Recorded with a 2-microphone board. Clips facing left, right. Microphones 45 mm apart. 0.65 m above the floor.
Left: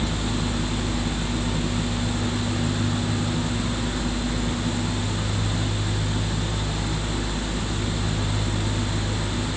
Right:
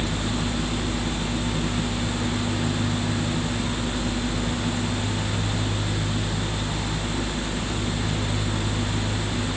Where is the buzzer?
I don't hear a buzzer.